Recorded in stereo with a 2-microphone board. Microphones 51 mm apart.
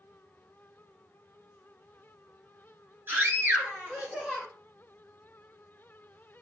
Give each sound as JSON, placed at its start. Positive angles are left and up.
{"t": 3.1, "sound": "a scream", "side_deg": -40, "distance_m": 2.0}